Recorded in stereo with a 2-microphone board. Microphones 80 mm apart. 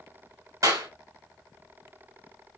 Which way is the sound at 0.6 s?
50° right (ahead or behind).